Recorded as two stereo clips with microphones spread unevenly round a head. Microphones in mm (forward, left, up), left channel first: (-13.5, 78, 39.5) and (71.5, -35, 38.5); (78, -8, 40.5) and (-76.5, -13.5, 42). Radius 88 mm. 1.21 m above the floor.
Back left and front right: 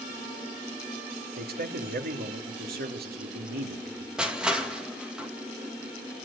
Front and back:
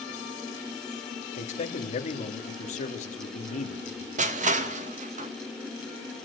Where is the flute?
I don't hear a flute.